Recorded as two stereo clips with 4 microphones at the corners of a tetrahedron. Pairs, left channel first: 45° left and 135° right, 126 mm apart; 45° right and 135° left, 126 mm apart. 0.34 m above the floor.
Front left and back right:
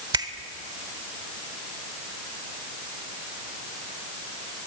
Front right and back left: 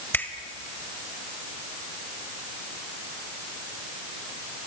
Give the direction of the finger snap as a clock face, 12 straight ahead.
4 o'clock.